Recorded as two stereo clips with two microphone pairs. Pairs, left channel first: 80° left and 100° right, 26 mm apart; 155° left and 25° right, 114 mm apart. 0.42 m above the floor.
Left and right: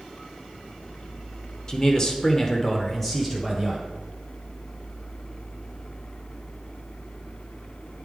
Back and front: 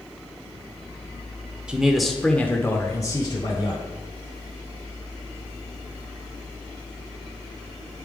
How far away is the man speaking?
About 1.0 m.